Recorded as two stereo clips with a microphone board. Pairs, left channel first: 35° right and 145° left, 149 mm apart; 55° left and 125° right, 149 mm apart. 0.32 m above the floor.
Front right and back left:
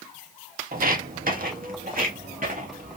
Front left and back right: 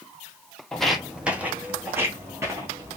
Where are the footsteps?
140° left, 0.7 m; by 3.0 s 170° left, 1.8 m.